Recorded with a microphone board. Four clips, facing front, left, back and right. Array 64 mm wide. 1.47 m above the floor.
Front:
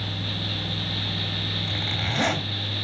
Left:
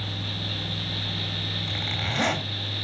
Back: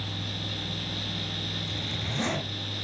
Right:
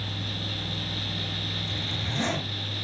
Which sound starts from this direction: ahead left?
A zipper, at 1.7 s.